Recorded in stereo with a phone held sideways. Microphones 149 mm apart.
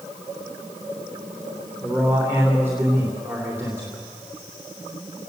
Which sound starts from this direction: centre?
A man speaking, at 1.8 s.